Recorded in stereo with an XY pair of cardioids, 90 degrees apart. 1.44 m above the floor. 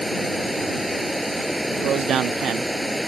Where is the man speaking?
70° right.